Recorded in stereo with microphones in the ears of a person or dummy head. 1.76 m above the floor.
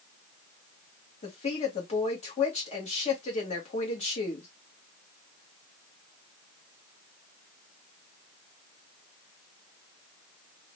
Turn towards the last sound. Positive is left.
turn(degrees=40)  # may be behind; listen again after turning